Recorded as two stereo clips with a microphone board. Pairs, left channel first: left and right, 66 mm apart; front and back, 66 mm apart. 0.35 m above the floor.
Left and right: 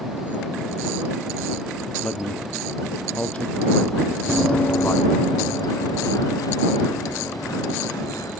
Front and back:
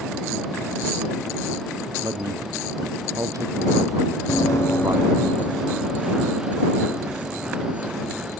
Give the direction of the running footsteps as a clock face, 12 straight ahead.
12 o'clock.